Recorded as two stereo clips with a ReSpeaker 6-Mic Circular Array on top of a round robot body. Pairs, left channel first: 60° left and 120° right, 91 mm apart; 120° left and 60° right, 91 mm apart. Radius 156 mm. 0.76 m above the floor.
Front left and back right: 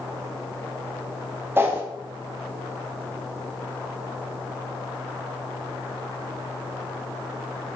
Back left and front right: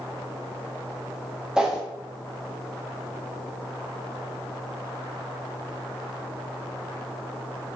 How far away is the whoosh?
About 0.8 m.